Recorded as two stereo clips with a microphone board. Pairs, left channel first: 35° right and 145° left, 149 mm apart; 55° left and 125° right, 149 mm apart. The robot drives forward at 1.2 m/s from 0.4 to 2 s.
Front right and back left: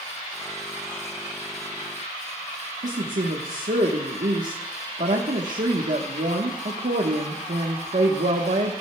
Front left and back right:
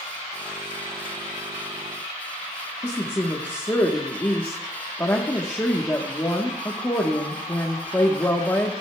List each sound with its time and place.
2.8 s a woman speaking: 125° left, 1.2 m